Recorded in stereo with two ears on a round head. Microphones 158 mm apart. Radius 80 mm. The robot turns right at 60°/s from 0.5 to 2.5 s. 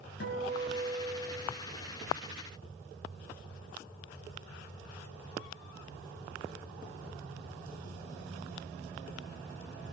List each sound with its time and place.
0.2 s a guitar: 110° left, 3.5 m; by 1.5 s 170° left, 3.5 m